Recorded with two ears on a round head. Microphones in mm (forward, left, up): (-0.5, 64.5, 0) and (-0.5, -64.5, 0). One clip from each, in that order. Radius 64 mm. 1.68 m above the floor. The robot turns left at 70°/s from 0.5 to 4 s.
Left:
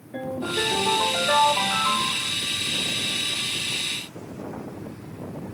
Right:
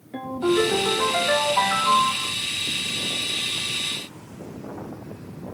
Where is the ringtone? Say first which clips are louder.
Right 5 dB; 90° right, 1.1 m; by 2.3 s 140° left, 1.1 m.